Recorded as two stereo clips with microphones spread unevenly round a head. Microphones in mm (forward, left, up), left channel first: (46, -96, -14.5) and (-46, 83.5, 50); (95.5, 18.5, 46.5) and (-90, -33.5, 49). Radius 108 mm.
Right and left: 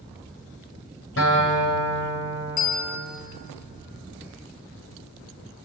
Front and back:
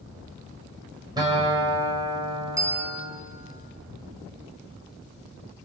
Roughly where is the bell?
Right.